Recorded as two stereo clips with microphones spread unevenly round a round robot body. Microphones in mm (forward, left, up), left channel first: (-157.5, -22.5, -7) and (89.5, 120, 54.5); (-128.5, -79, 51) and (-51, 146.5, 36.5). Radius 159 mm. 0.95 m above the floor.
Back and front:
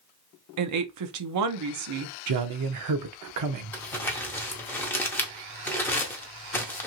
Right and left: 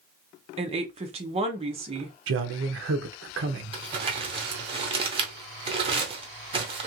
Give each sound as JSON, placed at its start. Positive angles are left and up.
{"t": 0.6, "sound": "a woman speaking", "azimuth_deg": 20, "distance_m": 0.6}
{"t": 2.3, "sound": "a man speaking", "azimuth_deg": 50, "distance_m": 0.7}
{"t": 3.7, "sound": "crumpling", "azimuth_deg": 105, "distance_m": 0.6}